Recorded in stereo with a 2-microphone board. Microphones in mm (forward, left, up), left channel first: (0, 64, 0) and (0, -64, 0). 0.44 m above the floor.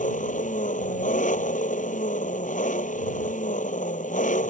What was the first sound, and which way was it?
An engine running, 85° left.